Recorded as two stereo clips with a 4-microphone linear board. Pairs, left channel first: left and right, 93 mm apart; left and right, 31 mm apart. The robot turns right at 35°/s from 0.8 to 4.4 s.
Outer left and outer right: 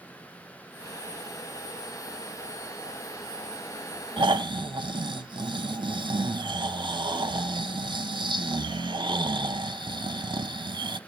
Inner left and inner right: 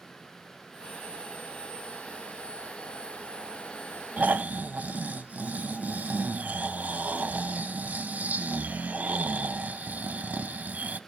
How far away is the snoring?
About 0.6 m.